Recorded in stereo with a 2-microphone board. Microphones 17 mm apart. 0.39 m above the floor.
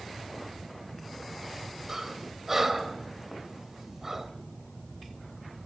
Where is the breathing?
20° right (ahead or behind), 1.9 m.